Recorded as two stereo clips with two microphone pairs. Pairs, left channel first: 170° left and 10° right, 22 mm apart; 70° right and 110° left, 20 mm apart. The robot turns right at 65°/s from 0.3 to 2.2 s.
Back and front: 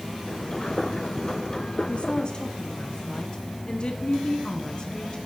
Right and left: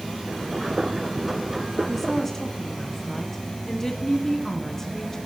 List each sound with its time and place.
1.9 s a woman speaking: 160° right, 1.1 m; by 5.2 s 140° right, 1.1 m